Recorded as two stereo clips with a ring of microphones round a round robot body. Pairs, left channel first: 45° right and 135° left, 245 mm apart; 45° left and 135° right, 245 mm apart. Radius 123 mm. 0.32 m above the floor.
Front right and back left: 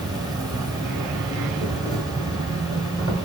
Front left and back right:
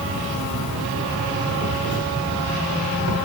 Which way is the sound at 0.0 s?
155° right.